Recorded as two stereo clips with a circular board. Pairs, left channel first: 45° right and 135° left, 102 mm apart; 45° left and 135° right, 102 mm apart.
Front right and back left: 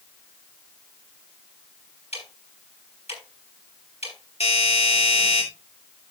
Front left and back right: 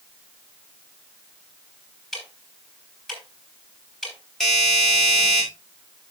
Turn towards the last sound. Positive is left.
turn(degrees=-40)